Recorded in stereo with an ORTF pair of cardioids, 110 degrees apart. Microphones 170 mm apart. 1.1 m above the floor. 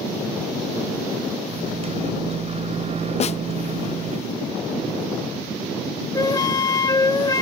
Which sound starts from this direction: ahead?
A flute, at 6.2 s.